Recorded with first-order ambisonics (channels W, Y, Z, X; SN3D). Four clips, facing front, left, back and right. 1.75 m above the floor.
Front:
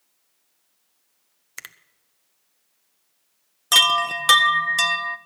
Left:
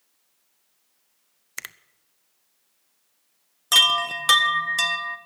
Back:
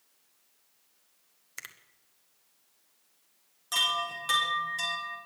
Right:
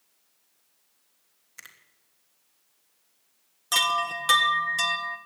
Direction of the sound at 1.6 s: 70° left.